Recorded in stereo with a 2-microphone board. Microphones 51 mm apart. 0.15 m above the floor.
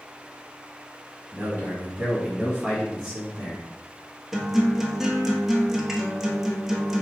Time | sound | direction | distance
1.3 | a man speaking | 35° right (ahead or behind) | 1.6 m
4.3 | a guitar | 5° right (ahead or behind) | 0.6 m